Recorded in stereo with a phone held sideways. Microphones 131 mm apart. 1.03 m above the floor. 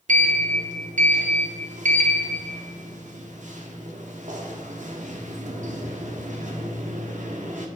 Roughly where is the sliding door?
Right.